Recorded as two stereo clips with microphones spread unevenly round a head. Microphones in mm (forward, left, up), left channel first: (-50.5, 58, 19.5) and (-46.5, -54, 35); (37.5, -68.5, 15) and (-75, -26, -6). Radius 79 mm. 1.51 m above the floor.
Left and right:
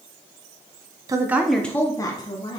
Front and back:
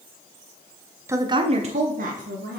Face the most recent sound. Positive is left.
turn(degrees=140)